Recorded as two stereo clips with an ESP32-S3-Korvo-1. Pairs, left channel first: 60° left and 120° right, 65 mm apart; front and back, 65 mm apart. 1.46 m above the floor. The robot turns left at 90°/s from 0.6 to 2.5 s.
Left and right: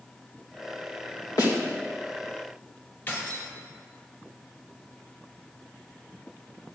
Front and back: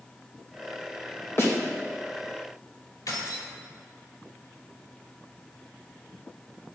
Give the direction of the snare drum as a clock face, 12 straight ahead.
10 o'clock.